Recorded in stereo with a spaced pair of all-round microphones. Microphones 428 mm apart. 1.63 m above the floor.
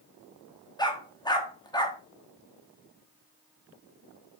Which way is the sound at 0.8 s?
10° left (ahead or behind).